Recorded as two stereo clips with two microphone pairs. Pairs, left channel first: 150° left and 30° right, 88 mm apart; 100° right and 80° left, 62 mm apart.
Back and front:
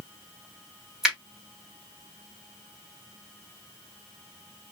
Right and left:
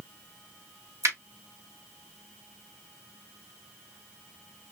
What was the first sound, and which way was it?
A finger snap, 55° left.